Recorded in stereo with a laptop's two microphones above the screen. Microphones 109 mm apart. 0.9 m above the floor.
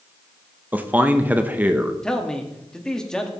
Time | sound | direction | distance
0.7 | a man speaking | 15° right (ahead or behind) | 0.8 m
2.0 | a man speaking | 5° left (ahead or behind) | 1.8 m